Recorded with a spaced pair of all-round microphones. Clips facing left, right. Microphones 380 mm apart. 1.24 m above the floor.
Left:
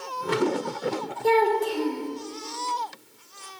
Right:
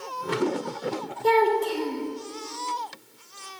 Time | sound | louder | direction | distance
1.2 | a child speaking | even | 10° right (ahead or behind) | 1.4 m